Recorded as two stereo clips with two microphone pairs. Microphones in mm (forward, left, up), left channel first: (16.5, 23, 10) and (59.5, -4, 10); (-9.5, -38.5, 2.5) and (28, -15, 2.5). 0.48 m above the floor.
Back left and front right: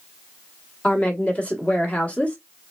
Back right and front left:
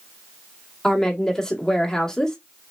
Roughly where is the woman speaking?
Behind.